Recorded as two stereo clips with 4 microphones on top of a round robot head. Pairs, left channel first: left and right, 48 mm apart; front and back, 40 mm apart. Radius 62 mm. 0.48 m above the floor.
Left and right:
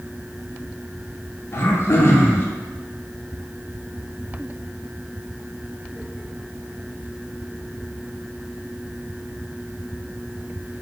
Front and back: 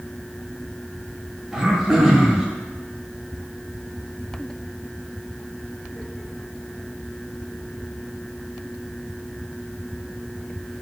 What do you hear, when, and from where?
1.5 s throat clearing: 105° left, 0.7 m